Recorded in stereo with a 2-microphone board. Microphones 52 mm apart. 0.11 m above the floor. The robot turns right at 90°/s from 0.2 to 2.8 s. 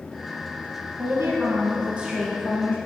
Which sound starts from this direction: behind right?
A woman speaking, at 1.0 s.